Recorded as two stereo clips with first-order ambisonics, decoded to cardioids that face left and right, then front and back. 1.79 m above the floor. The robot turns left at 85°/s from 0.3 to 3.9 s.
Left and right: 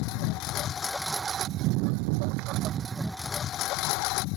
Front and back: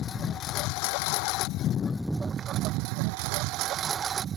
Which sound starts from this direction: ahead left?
A lawn mower, at 0.0 s.